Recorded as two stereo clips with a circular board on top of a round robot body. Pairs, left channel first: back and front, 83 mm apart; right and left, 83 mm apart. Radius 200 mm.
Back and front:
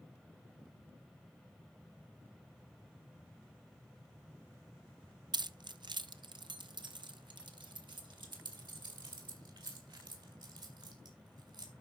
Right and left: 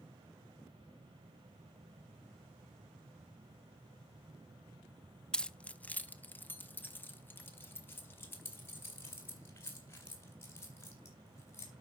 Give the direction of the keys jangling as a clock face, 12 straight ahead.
12 o'clock.